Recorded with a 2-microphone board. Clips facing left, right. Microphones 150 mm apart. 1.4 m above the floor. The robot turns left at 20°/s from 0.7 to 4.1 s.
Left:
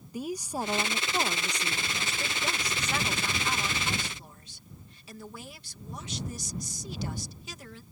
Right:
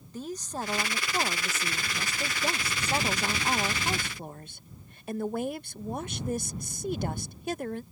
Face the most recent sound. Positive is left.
turn(degrees=-60)